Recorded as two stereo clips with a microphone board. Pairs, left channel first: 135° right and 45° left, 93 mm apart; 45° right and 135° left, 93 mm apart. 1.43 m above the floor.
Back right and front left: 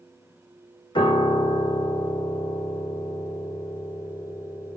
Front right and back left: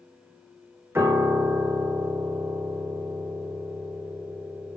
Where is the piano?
160° right, 1.5 m.